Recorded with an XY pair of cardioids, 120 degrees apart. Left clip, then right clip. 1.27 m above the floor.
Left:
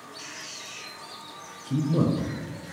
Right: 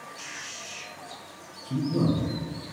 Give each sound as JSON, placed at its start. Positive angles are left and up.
{"t": 0.2, "sound": "a man speaking", "azimuth_deg": -35, "distance_m": 1.3}